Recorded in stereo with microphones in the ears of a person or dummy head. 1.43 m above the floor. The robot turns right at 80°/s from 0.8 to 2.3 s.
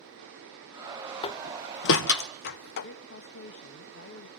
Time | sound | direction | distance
1.2 | a door slam | 25° left (ahead or behind) | 0.8 m
2.8 | a woman speaking | 60° left (ahead or behind) | 1.2 m